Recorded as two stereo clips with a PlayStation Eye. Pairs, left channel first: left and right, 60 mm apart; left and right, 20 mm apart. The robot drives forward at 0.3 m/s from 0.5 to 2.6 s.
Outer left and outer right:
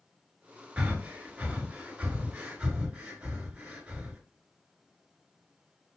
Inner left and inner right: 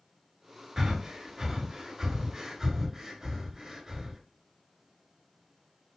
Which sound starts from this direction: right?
Breathing, at 0.8 s.